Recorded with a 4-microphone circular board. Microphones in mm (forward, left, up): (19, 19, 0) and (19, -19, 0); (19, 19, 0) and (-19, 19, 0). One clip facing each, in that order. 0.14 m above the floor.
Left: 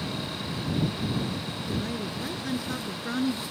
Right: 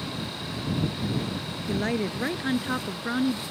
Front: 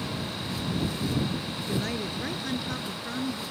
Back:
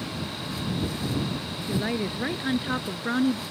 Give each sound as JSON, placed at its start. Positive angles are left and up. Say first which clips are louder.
{"t": 1.7, "sound": "a woman speaking", "louder": "right 6 dB, back 4 dB", "azimuth_deg": -105}